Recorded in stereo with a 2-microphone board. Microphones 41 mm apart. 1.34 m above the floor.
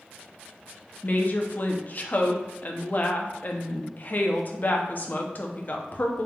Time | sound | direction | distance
1.0 | a woman speaking | 40° left (ahead or behind) | 0.6 m